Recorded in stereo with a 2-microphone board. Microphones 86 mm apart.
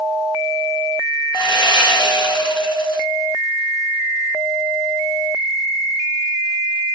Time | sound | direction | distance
1.3 | sawing | 55° left (ahead or behind) | 2 m